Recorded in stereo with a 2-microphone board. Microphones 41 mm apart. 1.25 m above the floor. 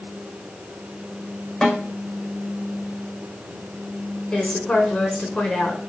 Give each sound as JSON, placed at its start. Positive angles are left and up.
{"t": 1.6, "sound": "a snare drum", "side_deg": 5, "distance_m": 6.5}
{"t": 4.3, "sound": "a woman speaking", "side_deg": 20, "distance_m": 5.5}